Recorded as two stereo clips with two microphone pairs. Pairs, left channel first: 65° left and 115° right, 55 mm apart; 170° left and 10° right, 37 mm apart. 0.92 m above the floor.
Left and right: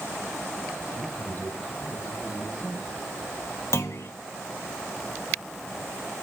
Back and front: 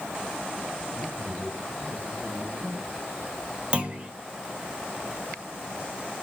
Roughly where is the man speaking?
Ahead.